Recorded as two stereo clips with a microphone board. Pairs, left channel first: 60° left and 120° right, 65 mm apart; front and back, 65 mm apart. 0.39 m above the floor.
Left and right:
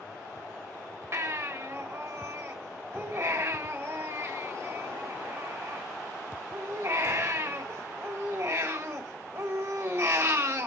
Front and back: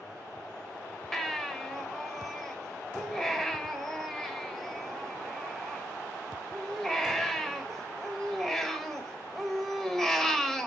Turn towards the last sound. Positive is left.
turn(degrees=-85)